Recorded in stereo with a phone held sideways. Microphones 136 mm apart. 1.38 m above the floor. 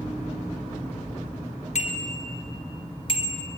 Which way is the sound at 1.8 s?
55° left (ahead or behind).